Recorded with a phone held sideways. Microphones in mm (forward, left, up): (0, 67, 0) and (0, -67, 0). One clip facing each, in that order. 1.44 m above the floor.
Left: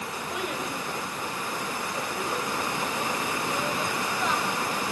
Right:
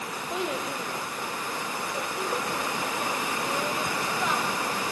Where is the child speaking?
25° right (ahead or behind), 3 m; by 4.6 s 5° right (ahead or behind), 5 m.